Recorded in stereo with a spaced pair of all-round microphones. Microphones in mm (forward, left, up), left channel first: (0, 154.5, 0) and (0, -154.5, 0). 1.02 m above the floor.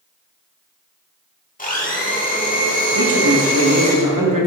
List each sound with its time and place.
1.6 s a blender: 25° left (ahead or behind), 1.2 m
3.0 s a man speaking: 85° right, 1.3 m